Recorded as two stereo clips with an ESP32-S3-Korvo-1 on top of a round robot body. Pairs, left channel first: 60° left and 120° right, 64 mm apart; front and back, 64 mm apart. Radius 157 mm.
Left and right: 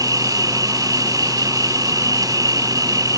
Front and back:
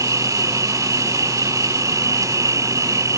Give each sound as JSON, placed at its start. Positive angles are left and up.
{"t": 0.0, "sound": "an insect", "azimuth_deg": -145}